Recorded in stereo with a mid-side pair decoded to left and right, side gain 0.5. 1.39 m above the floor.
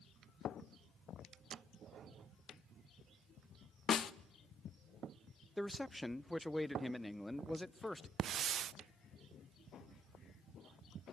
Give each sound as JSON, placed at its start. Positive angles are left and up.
{"t": 3.9, "sound": "a snare drum", "azimuth_deg": 45, "distance_m": 0.9}
{"t": 5.6, "sound": "a man speaking", "azimuth_deg": 5, "distance_m": 0.8}
{"t": 8.2, "sound": "a hiss", "azimuth_deg": -55, "distance_m": 0.6}